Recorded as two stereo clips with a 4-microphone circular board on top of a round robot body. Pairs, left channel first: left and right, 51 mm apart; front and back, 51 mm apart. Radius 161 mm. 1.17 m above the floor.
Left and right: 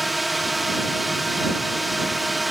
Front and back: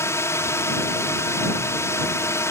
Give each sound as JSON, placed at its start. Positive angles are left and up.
{"t": 0.0, "sound": "a drone", "azimuth_deg": 0}